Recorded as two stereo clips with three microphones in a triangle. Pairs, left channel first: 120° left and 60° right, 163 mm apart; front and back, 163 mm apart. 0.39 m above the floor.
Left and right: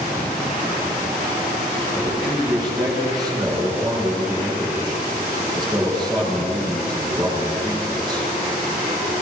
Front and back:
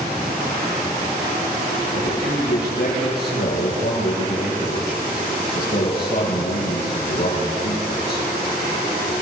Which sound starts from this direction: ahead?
A man speaking, at 1.9 s.